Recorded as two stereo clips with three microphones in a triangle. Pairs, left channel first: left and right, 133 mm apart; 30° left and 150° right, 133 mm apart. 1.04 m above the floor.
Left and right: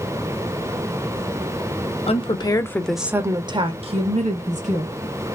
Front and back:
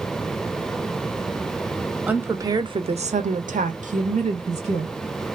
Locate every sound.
2.1 s a woman speaking: 135° left, 0.6 m; by 4.9 s 115° right, 1.1 m